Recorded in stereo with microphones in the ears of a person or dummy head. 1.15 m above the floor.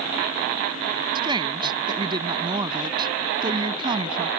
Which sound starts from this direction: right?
A woman speaking, at 1.1 s.